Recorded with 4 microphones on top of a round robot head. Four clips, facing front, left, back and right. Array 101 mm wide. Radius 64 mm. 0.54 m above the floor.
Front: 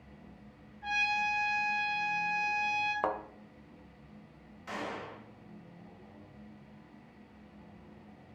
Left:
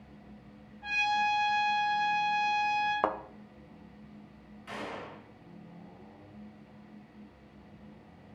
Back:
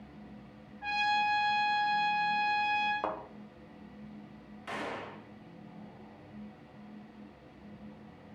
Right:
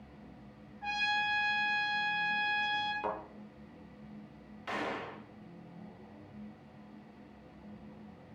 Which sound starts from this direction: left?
A thud, at 3.0 s.